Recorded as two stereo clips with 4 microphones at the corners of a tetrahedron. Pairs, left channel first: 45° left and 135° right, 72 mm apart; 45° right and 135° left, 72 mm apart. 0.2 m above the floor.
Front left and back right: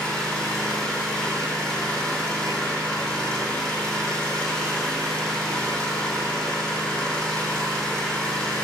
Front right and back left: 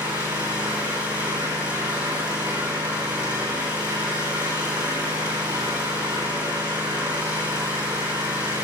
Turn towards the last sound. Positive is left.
turn(degrees=125)